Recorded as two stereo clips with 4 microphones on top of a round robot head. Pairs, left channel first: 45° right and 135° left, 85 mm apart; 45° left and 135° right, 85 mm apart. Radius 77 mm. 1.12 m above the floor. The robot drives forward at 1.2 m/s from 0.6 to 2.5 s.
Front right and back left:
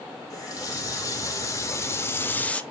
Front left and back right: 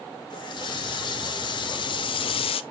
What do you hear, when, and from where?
0.3 s a running tap: 10° left, 3 m; by 2.6 s 30° left, 0.8 m